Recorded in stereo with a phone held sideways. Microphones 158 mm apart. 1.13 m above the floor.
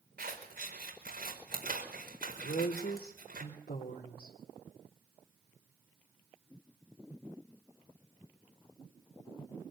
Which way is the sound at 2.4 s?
80° left.